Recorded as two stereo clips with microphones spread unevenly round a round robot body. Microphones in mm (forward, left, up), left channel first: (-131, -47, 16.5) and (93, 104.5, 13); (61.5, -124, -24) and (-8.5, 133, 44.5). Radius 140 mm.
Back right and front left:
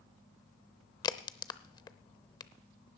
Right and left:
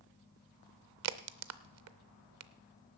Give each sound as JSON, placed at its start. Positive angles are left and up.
{"t": 1.0, "sound": "a crack", "azimuth_deg": 140, "distance_m": 0.7}